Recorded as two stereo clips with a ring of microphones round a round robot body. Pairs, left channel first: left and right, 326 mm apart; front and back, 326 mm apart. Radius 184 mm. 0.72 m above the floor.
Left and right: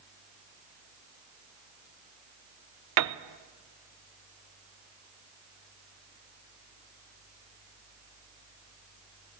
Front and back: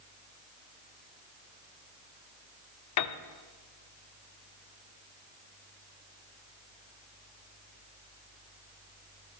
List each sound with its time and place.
3.0 s a piano: 45° right, 0.5 m